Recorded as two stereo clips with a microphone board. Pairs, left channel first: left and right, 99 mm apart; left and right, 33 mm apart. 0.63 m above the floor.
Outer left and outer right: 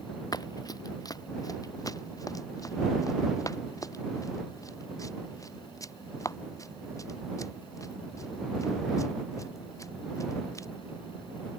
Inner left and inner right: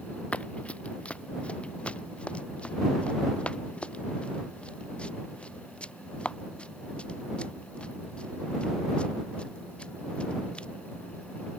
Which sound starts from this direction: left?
Running footsteps, at 0.3 s.